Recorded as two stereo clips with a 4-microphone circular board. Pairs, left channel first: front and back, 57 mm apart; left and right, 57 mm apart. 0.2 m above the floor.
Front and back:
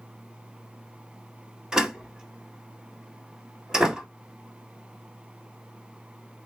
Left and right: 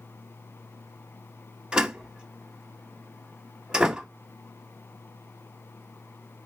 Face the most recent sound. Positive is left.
turn(degrees=-130)